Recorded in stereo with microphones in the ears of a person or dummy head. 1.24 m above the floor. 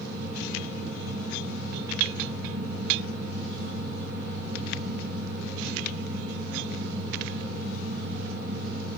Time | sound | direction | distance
0.0 | a fan | 50° left (ahead or behind) | 1.2 m